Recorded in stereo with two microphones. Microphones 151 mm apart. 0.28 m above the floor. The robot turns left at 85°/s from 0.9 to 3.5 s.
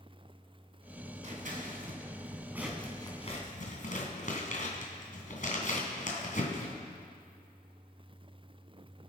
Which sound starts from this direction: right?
Scissors, at 1.2 s.